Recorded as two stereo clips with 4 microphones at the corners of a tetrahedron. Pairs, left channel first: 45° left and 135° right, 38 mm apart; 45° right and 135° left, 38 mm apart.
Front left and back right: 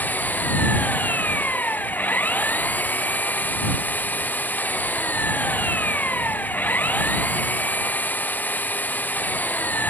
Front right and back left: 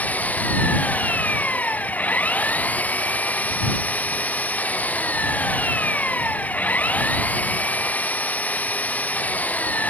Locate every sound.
0.0 s an engine running: straight ahead